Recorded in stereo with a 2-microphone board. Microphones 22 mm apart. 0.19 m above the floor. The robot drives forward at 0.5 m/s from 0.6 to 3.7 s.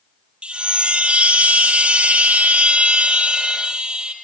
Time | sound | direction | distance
0.4 | a chime | 50° right (ahead or behind) | 1.1 m